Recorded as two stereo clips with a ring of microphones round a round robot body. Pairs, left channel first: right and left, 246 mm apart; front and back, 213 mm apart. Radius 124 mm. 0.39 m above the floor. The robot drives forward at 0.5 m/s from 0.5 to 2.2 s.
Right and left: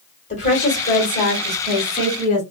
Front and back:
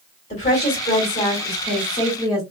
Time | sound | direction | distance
0.3 | a woman speaking | 40° right | 1.7 m